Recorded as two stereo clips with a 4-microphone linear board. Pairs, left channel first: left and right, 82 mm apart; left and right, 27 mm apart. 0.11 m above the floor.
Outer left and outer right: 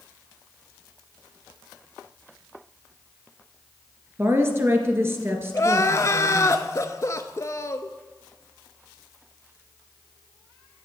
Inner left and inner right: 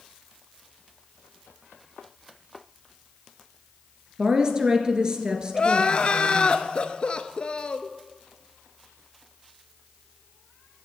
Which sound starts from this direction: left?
Crying, at 5.5 s.